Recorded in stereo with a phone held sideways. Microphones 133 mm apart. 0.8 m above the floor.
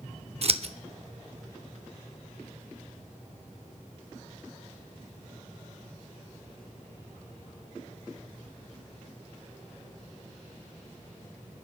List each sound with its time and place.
0.4 s scissors: 50° right (ahead or behind), 0.7 m